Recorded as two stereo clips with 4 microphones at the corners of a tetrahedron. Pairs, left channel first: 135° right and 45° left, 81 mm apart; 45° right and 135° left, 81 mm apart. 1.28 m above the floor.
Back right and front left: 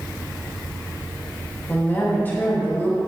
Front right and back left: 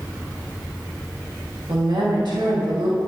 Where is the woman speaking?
160° left, 1.7 m.